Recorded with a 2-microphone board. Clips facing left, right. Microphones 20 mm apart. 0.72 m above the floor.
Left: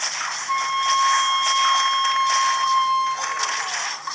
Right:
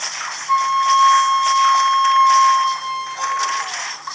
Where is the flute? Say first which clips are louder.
Right 6 dB; 5° right (ahead or behind), 0.8 m.